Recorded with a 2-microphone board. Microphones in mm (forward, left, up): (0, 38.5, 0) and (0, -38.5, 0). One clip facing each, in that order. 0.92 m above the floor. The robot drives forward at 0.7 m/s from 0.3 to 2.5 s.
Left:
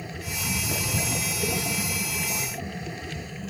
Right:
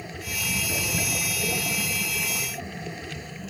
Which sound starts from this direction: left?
Footsteps, at 0.2 s.